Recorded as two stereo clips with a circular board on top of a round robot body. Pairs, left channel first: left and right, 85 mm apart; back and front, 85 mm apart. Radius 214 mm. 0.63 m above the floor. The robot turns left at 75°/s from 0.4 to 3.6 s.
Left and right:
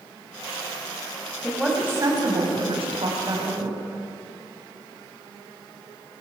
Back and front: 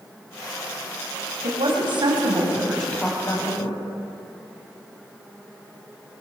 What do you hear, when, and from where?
1.4 s a woman speaking: 10° left, 6 m; by 3.8 s 155° right, 6 m